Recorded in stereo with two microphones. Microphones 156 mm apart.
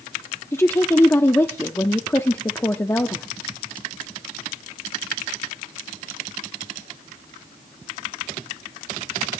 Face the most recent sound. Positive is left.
turn(degrees=15)  # may be behind; listen again after turning